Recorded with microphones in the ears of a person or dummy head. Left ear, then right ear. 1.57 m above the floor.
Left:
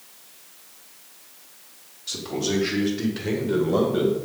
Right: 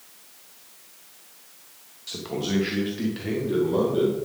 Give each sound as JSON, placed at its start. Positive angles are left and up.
{"t": 2.1, "sound": "a man speaking", "side_deg": -30, "distance_m": 1.5}